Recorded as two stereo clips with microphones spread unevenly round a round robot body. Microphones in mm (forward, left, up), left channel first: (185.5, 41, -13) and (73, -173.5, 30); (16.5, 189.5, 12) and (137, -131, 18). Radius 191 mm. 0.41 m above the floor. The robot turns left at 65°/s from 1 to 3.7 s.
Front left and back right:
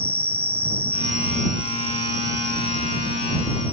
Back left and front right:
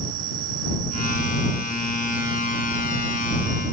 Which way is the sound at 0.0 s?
60° right.